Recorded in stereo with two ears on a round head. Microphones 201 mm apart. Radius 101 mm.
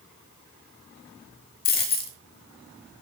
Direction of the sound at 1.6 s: 45° left (ahead or behind).